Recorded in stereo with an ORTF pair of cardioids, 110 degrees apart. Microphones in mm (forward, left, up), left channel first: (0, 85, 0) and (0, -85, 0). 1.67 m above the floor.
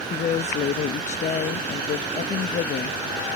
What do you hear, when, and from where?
0.1 s a woman speaking: 45° left, 0.5 m